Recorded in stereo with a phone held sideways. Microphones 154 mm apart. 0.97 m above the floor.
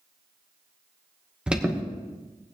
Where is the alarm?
5° right (ahead or behind), 1.3 m.